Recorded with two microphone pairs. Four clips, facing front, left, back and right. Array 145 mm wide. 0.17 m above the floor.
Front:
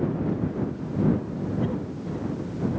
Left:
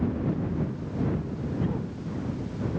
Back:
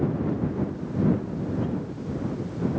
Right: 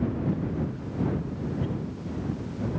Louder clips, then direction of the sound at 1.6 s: Left 1 dB, front 1 dB; 30° left.